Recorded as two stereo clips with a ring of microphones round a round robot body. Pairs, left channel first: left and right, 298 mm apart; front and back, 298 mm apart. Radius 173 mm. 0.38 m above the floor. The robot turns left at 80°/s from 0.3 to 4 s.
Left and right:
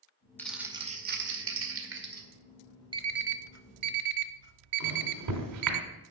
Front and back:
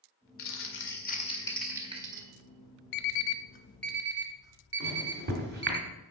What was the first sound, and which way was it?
Crumpling, 10° left.